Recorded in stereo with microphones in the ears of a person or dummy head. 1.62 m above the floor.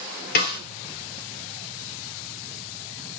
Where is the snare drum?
50° left (ahead or behind), 1.9 m.